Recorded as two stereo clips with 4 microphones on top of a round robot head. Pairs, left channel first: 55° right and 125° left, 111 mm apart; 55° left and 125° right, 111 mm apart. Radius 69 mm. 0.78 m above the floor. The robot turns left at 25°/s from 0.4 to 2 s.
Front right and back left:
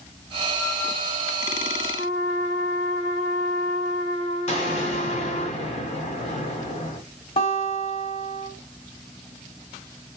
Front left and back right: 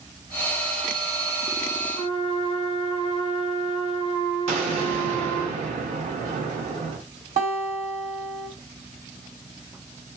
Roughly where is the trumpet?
Right.